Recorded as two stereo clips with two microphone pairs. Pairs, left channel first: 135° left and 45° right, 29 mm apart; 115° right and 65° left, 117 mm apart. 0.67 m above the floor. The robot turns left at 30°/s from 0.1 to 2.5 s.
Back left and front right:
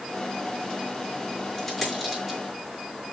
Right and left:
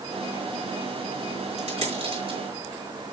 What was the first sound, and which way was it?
A dropped coin, 40° left.